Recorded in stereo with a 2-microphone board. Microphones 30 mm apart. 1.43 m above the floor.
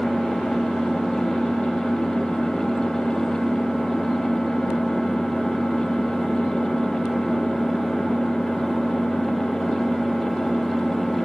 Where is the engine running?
15° left (ahead or behind), 5.5 m.